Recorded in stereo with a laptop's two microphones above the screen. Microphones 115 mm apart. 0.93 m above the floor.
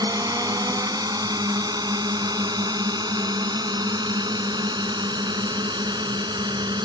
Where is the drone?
35° right (ahead or behind); by 6.9 s 40° right (ahead or behind).